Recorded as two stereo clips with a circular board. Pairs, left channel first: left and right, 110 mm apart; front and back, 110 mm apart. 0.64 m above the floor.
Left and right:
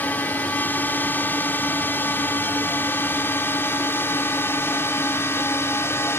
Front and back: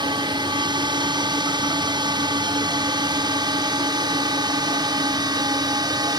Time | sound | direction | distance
0.0 | a drone | 155° left | ?